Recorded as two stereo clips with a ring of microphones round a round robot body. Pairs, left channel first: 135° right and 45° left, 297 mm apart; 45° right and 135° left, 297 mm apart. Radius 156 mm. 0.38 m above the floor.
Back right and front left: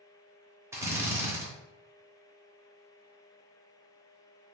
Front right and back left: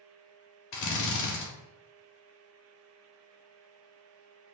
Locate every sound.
0.7 s a drill: 35° right, 0.9 m